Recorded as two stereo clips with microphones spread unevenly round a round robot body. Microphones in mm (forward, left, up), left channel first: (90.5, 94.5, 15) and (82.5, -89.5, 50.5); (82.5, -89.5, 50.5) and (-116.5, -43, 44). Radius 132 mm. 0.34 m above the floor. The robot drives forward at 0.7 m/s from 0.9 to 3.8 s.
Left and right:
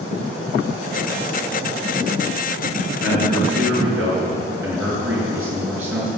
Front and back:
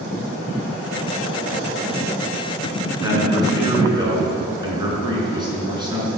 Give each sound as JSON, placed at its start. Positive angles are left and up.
{"t": 3.0, "sound": "a man speaking", "azimuth_deg": -120, "distance_m": 5.5}